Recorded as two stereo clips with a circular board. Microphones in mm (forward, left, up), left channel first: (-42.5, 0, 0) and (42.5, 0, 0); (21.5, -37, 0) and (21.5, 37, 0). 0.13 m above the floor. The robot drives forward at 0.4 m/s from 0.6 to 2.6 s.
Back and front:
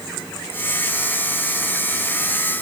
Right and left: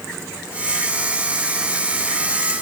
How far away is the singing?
No singing in this recording.